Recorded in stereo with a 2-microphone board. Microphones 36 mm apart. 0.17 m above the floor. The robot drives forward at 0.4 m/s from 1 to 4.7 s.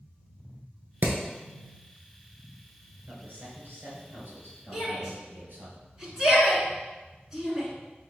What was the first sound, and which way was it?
Hammering, 55° right (ahead or behind).